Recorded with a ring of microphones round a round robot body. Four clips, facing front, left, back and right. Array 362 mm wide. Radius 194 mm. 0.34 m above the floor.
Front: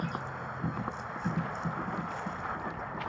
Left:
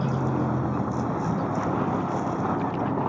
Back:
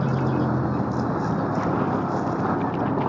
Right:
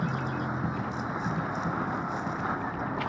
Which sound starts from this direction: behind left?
A vehicle, at 0.0 s.